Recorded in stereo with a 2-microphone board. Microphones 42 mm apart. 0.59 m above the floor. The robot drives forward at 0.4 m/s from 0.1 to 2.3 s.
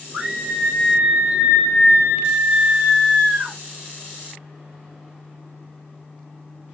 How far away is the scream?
About 1.9 m.